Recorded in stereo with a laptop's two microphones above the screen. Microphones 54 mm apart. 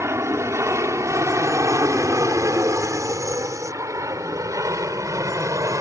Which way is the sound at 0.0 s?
55° right (ahead or behind).